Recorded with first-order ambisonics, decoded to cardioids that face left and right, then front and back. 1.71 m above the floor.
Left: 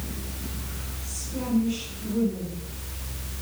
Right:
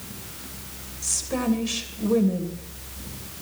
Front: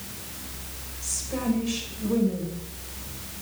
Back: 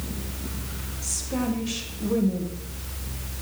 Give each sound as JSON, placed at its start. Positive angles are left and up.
{"t": 1.0, "sound": "a woman speaking", "azimuth_deg": -110, "distance_m": 2.5}